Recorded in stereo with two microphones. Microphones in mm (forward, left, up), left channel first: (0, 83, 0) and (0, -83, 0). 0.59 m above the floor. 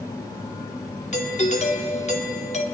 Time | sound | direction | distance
1.1 | a doorbell | 45° left (ahead or behind) | 2 m